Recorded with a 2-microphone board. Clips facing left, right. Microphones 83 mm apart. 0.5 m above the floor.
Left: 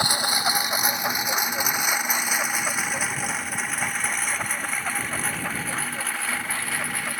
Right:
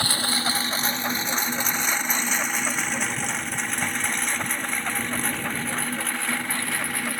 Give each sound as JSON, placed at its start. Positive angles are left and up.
{"t": 0.0, "sound": "a lawn mower", "side_deg": 15}